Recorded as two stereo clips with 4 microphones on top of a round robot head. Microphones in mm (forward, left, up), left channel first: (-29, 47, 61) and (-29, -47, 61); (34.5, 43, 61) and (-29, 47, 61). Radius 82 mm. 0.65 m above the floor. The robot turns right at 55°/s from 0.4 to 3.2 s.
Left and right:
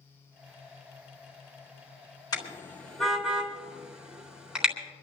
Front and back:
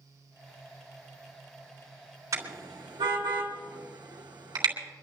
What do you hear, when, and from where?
2.3 s a car horn: 140° left, 3.5 m; by 4.7 s 170° right, 3.5 m